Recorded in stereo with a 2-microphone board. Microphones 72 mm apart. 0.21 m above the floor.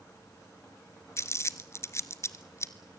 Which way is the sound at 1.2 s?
40° left (ahead or behind).